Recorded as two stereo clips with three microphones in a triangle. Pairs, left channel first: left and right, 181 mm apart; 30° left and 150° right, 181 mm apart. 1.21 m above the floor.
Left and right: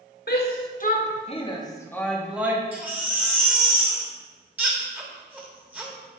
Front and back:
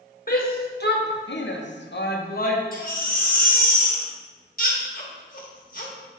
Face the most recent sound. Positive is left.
turn(degrees=-10)